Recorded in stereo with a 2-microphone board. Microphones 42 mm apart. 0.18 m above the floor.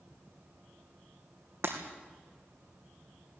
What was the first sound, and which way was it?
Breaking glass, 60° right (ahead or behind).